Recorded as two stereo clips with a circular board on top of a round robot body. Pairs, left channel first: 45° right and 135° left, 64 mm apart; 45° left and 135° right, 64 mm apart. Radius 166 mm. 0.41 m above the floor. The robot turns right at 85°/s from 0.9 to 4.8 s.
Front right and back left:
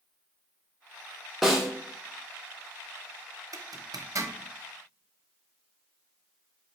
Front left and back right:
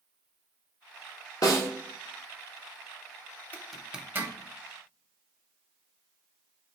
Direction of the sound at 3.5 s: 110° left.